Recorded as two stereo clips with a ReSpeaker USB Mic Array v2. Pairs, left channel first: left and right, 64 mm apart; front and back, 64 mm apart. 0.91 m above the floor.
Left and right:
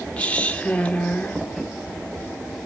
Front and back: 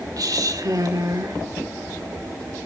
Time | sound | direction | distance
0.2 | a woman speaking | 160° left | 2 m